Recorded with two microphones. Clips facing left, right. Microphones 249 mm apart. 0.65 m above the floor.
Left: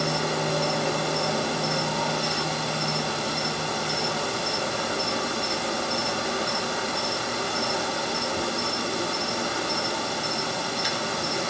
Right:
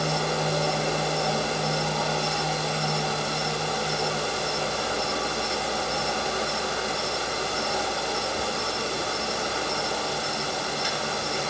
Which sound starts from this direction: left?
An insect, at 0.0 s.